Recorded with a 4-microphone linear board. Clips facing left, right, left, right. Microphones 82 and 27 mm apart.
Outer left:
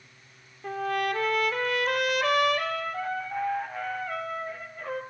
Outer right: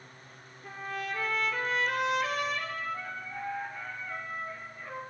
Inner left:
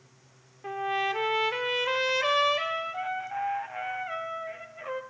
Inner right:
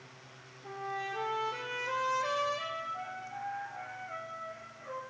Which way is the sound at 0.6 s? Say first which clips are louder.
Outer left 9 dB, inner left 9 dB; 65° left (ahead or behind).